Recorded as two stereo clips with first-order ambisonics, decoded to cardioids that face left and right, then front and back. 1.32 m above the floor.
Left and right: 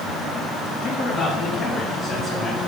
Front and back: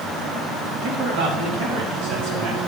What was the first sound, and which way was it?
A man speaking, 165° left.